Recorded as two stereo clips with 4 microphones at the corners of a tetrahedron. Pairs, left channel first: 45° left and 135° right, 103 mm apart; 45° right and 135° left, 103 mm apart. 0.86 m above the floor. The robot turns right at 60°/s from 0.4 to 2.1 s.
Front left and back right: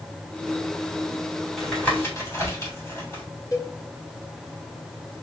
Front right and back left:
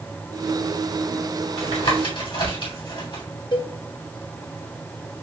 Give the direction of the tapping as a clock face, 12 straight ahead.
2 o'clock.